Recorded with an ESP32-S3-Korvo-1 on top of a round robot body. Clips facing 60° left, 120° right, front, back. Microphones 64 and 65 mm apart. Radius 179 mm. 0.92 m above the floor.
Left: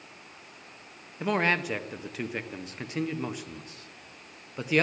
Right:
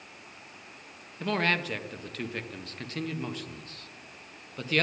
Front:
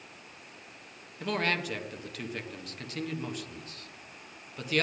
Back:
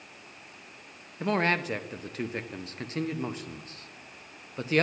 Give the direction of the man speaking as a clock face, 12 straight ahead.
8 o'clock.